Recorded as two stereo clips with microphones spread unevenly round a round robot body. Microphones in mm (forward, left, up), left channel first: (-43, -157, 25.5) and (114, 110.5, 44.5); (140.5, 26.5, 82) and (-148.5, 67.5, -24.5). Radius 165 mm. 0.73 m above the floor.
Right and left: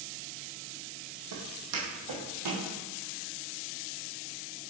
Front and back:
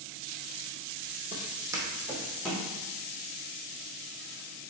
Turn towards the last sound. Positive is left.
turn(degrees=65)